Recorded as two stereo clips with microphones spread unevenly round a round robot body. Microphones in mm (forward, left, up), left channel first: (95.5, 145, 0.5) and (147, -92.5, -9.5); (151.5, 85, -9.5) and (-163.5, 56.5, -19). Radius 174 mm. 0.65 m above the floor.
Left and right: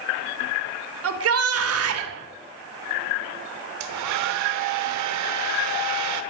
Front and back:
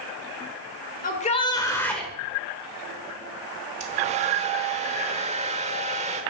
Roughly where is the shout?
Ahead right.